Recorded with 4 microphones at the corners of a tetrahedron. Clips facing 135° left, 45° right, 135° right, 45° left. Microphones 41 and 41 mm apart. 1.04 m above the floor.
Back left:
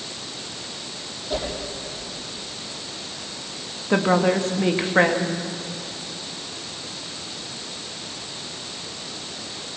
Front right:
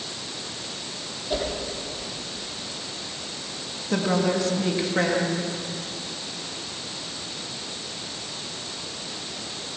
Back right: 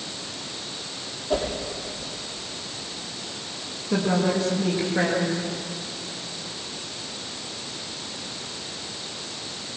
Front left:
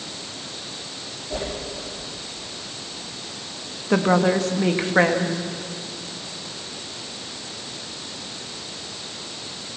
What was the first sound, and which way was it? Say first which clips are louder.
A whoosh: even, back right 5 dB; 125° right.